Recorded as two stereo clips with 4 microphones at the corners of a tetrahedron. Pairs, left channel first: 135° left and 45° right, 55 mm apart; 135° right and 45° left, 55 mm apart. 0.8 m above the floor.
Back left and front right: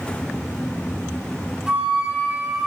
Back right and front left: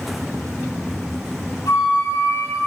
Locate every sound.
1.7 s a flute: 120° right, 4.5 m